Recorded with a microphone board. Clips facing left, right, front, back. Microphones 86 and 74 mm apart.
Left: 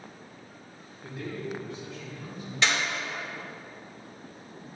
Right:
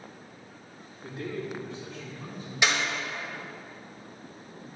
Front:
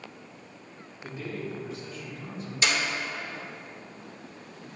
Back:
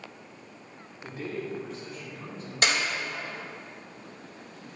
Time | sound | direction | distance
1.0 | a man speaking | 150° right | 2.5 m
2.6 | a clap | 165° right | 2 m